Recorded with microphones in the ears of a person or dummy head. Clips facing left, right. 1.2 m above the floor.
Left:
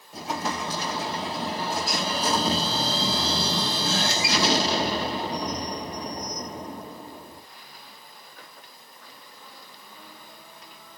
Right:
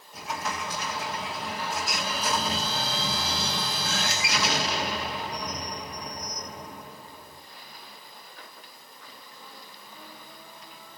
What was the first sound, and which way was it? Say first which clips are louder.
An explosion: left 4 dB; 30° left (ahead or behind).